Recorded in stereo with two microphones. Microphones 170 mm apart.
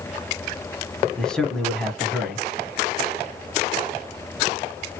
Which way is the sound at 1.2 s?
5° left (ahead or behind).